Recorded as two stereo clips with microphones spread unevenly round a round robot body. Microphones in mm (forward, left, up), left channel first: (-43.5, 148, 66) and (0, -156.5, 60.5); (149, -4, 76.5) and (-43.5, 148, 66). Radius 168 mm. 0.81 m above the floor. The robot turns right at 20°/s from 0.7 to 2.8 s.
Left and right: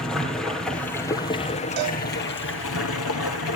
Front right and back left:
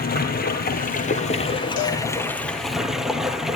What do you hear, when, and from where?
0.0 s running water: 10° left, 2.5 m; by 3.6 s 55° left, 2.5 m
1.8 s a cowbell: 70° right, 3.5 m; by 2.0 s 65° right, 3.5 m